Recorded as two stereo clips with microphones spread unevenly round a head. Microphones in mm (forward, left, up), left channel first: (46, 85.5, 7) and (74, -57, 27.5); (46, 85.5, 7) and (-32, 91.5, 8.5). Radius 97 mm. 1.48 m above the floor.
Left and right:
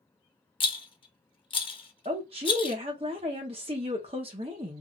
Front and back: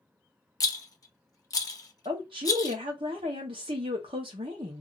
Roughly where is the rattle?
Ahead left.